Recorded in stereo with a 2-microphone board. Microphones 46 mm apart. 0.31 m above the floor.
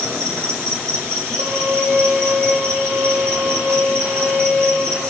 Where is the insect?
70° right (ahead or behind), 4.5 m.